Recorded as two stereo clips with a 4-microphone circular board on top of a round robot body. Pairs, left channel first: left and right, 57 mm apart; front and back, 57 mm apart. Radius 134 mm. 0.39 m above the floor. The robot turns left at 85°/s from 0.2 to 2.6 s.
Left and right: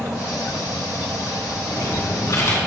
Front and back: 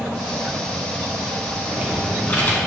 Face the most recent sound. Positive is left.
turn(degrees=40)